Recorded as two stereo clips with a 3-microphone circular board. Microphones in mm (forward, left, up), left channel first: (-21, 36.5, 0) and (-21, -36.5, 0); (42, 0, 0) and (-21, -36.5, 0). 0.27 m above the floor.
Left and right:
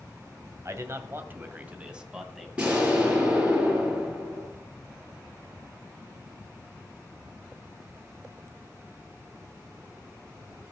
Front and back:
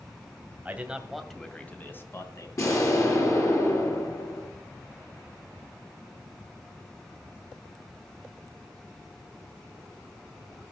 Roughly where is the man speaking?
Right.